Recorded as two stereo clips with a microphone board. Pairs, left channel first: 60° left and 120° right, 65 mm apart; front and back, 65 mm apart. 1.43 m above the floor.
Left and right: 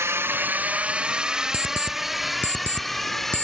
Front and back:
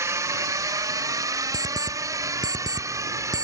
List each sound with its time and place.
0.0 s a drone: 155° right; by 3.4 s 145° left
1.5 s an alarm clock: straight behind